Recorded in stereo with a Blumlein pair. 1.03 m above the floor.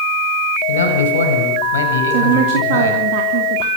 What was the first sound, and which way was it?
A man speaking, 65° left.